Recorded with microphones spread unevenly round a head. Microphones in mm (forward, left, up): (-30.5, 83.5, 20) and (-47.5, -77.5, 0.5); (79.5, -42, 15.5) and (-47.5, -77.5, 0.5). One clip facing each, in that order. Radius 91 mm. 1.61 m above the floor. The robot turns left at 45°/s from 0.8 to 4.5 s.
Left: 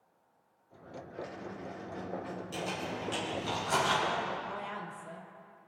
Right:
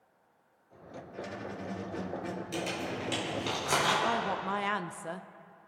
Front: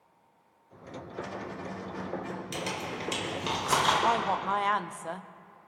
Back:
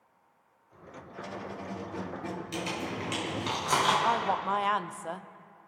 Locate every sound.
1.1 s a squeak: 65° right, 1.4 m; by 3.5 s 170° right, 1.4 m
2.5 s crumpling: 15° right, 5 m; by 3.9 s 80° right, 5 m
4.0 s a woman speaking: 55° right, 0.6 m; by 5.3 s 75° right, 0.6 m